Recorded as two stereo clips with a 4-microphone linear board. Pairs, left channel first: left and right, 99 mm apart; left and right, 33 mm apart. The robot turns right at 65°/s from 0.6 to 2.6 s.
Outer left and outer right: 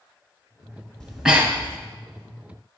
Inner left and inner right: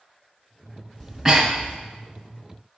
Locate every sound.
1.0 s breathing: 5° left (ahead or behind), 1.2 m; by 1.8 s 35° right (ahead or behind), 1.2 m